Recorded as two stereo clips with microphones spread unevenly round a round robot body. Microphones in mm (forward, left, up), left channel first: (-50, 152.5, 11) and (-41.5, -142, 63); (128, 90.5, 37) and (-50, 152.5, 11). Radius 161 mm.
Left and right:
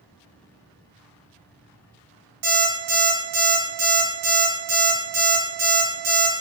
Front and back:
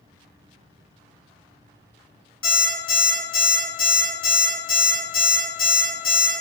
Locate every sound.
2.4 s an alarm clock: 55° right, 1.2 m